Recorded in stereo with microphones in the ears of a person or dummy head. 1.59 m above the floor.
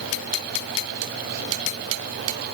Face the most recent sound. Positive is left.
No sound to turn to.